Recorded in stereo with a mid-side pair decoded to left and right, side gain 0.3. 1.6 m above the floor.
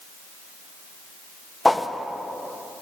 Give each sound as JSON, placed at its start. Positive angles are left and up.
{"t": 1.6, "sound": "a whoosh", "azimuth_deg": 20, "distance_m": 1.1}